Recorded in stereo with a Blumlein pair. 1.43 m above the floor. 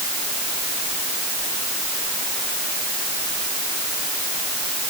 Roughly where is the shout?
I don't hear a shout.